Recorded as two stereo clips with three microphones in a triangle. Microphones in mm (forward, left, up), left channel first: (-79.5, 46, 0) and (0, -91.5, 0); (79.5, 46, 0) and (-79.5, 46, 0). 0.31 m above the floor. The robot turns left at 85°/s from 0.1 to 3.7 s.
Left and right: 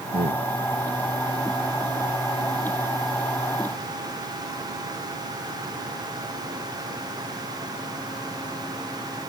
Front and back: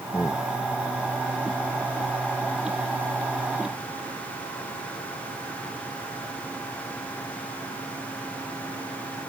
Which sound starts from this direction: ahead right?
A man speaking, at 0.1 s.